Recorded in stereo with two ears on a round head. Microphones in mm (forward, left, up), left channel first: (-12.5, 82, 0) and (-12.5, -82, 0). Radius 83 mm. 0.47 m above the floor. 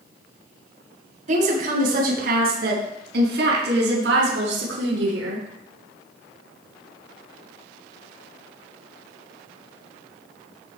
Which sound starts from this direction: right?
A woman speaking, at 1.3 s.